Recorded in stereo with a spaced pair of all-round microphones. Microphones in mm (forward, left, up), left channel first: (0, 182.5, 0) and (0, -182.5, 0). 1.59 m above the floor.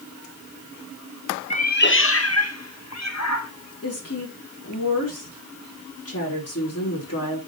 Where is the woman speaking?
45° left (ahead or behind), 5 m.